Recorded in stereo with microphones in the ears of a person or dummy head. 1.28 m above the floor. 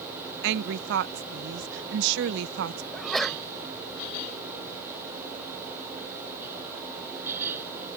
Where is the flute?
No flute in this recording.